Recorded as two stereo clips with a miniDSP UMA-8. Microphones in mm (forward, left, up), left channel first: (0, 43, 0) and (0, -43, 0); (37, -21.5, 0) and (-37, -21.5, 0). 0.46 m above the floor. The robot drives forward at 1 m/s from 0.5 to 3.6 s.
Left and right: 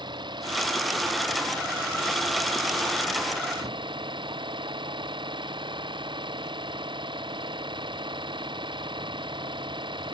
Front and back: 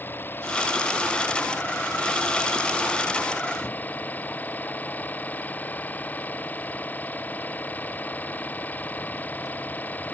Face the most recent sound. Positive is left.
turn(degrees=-65)